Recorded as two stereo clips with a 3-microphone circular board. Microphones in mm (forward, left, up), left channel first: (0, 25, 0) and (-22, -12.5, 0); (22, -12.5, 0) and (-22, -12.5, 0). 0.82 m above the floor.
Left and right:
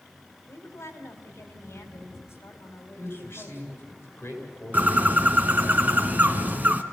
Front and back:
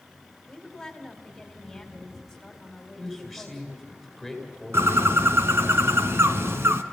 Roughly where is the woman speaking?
Left.